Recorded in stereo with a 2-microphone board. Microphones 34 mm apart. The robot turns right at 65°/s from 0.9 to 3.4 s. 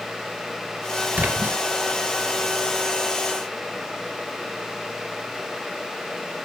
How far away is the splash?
About 3.5 m.